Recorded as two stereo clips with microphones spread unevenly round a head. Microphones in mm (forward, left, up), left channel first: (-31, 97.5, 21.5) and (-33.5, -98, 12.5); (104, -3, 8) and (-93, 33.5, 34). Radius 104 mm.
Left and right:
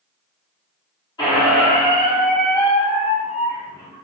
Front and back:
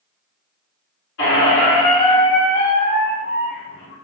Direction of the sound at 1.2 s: 20° left.